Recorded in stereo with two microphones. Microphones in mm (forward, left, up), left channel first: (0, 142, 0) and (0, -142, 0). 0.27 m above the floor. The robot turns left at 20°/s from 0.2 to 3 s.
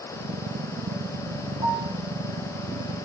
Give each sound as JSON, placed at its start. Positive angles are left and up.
{"t": 1.6, "sound": "a piano", "side_deg": 75, "distance_m": 2.5}